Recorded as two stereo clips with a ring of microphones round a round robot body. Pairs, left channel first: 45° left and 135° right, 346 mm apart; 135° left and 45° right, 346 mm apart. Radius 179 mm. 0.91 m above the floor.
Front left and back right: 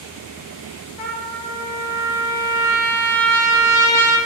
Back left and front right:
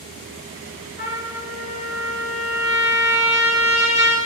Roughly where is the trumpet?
Ahead left.